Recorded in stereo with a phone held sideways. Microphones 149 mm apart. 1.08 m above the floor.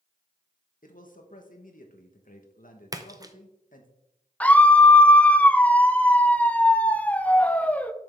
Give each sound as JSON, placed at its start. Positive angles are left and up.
{"t": 0.8, "sound": "a man speaking", "side_deg": 65, "distance_m": 1.3}
{"t": 2.9, "sound": "a splash", "side_deg": -25, "distance_m": 0.6}
{"t": 4.4, "sound": "a scream", "side_deg": 10, "distance_m": 0.5}